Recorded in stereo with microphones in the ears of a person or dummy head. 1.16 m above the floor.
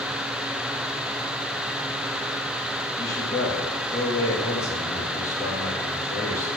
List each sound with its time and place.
3.0 s a man speaking: 15° left (ahead or behind), 1.8 m